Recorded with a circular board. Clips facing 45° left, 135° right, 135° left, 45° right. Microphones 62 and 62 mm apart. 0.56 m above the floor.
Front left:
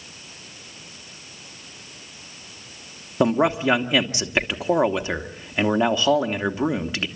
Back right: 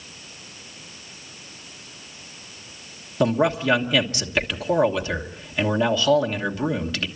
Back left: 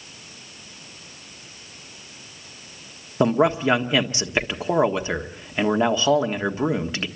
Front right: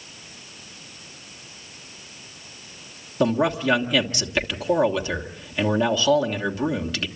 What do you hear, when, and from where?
3.2 s a man speaking: 95° left, 1.4 m